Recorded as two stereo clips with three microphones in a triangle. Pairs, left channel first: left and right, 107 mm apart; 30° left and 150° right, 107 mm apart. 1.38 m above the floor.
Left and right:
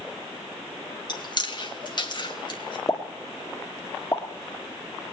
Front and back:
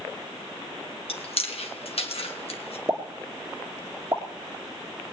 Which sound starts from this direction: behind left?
A pop, at 2.9 s.